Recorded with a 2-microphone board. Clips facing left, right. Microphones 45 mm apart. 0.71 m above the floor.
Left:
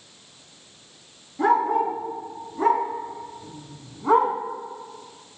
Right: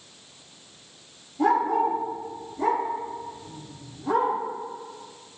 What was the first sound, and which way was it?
A dog barking, 50° left (ahead or behind).